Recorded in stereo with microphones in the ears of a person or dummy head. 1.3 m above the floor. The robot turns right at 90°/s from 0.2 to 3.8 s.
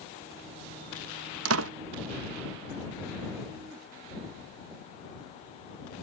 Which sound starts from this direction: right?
A door slam, at 1.4 s.